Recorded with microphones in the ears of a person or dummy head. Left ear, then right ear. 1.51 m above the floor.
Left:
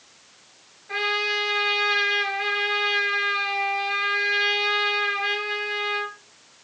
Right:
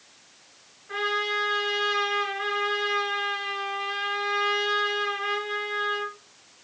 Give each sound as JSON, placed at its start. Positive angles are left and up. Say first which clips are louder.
{"t": 0.9, "sound": "a trumpet", "louder": "left 3 dB", "side_deg": 10, "distance_m": 3.0}